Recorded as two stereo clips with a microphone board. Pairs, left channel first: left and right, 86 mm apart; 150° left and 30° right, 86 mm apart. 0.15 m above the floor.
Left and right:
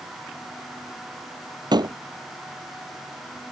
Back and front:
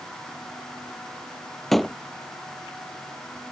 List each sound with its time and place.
1.7 s a door slam: 120° right